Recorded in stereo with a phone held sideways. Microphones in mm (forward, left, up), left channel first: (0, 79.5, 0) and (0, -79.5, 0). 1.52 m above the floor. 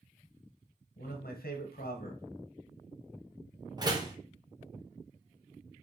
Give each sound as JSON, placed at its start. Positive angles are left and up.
{"t": 1.0, "sound": "a man speaking", "side_deg": 80, "distance_m": 1.3}
{"t": 3.8, "sound": "a door slam", "side_deg": -25, "distance_m": 0.9}